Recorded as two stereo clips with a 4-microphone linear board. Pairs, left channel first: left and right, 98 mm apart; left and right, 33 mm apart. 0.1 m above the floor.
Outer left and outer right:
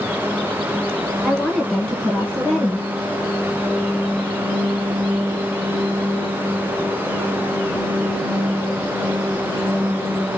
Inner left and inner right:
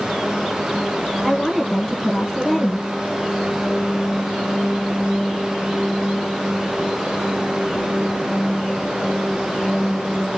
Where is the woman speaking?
10° left (ahead or behind), 1.8 m.